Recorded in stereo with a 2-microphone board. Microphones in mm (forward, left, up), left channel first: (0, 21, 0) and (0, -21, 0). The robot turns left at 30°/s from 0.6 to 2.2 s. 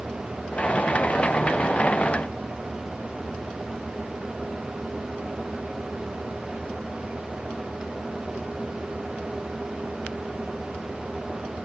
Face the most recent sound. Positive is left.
No sound to turn to.